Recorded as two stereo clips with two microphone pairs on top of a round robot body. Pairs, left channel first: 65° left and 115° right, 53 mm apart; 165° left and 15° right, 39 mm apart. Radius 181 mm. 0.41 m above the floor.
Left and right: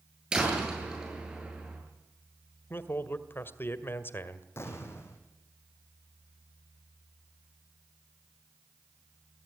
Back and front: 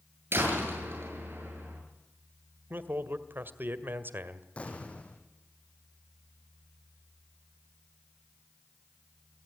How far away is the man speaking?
About 2 m.